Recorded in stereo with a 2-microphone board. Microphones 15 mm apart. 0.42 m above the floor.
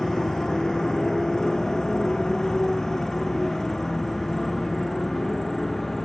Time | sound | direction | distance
0.0 | a motorcycle | 50° left (ahead or behind) | ?